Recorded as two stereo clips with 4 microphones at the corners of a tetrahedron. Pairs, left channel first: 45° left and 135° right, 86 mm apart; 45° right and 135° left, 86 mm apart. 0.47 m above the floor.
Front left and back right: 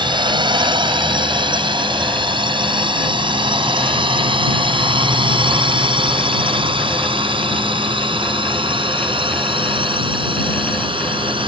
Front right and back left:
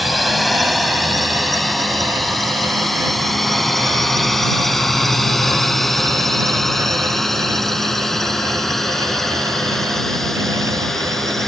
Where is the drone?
135° right; by 11.5 s 130° right.